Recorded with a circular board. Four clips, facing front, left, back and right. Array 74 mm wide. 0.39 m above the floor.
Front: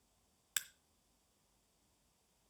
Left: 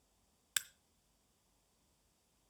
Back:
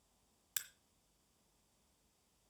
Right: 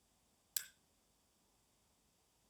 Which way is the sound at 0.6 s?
70° left.